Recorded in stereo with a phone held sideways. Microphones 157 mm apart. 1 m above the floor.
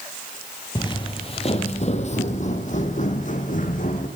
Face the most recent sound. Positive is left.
turn(degrees=55)  # may be behind; listen again after turning